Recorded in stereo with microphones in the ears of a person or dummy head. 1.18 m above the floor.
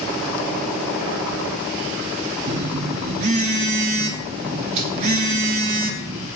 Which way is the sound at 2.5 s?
35° right (ahead or behind).